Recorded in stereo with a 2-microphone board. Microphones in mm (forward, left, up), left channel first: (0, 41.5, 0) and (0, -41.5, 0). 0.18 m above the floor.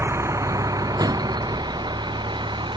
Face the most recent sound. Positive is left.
turn(degrees=-70)  # may be behind; listen again after turning